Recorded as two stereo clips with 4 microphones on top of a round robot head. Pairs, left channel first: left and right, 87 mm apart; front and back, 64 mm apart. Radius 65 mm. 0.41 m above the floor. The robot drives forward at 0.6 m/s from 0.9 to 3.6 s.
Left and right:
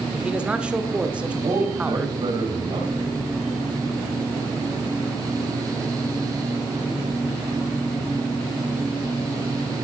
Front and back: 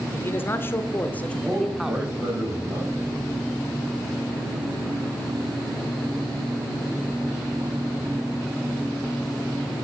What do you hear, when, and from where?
0.1 s a man speaking: 20° right, 0.9 m; by 2.1 s 145° right, 0.8 m
1.4 s a man speaking: 105° right, 3 m; by 3.2 s 125° right, 3.5 m